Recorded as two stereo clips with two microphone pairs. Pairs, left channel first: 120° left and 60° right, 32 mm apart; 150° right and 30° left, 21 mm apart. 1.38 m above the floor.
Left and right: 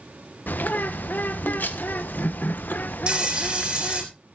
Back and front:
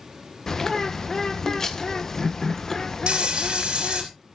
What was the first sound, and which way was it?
A bird, 145° left.